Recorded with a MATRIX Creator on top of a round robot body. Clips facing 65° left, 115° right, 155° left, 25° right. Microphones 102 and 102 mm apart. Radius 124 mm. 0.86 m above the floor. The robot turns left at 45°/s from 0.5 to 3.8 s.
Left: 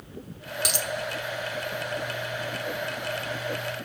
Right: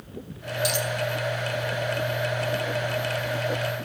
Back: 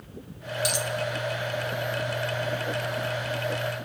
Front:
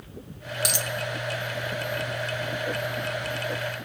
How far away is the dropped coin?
About 0.6 m.